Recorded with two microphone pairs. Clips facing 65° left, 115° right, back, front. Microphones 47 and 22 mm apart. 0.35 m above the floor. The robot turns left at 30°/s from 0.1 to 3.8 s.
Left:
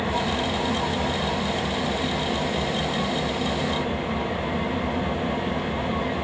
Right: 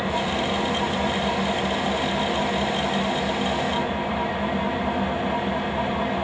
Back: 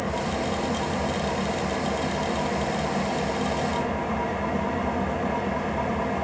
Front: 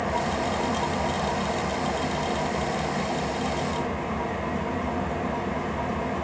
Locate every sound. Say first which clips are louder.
0.0 s an engine running: right 1 dB, front 1 dB; 75° right, 1.2 m; by 6.2 s 170° left, 1.2 m